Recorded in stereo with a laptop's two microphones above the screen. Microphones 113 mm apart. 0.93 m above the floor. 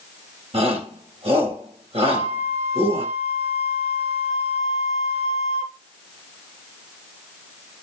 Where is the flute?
85° right, 7.5 m.